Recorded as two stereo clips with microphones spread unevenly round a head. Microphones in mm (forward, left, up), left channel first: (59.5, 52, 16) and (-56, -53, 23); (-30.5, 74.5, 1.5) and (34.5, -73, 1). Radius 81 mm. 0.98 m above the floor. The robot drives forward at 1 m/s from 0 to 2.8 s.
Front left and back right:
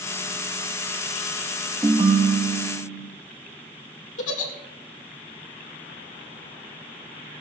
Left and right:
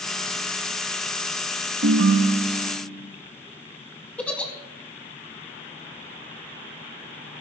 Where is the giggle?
30° left, 1.7 m.